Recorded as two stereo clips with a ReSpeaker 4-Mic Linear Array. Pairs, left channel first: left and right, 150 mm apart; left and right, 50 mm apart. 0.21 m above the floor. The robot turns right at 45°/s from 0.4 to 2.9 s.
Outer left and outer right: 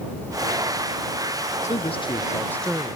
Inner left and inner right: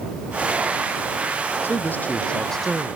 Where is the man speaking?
130° left; by 3.0 s 175° right.